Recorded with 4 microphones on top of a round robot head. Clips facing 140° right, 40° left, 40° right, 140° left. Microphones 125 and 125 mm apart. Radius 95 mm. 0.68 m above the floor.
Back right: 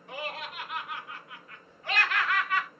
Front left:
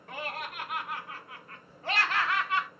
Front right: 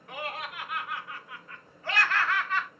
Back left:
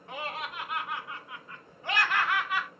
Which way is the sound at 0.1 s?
80° left.